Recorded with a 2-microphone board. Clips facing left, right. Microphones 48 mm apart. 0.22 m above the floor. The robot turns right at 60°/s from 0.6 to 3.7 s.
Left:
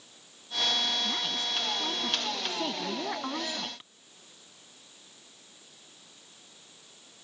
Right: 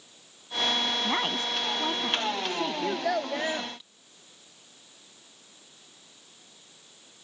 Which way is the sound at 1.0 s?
85° right.